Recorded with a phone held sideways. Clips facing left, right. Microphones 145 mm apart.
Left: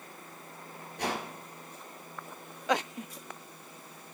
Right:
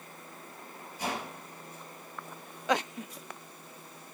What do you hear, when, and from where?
1.0 s a whoosh: 70° left (ahead or behind), 3 m